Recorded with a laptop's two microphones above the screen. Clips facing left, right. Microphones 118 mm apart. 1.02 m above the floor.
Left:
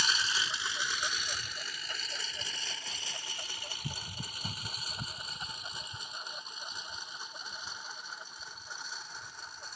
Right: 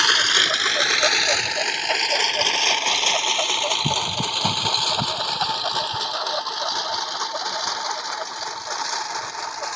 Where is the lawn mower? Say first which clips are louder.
Right 11 dB; 85° right; by 9.8 s 80° right.